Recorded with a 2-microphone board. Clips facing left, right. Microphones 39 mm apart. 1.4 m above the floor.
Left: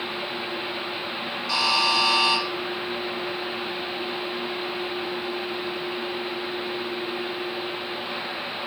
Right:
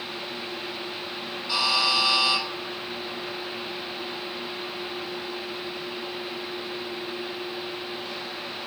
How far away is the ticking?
I don't hear ticking.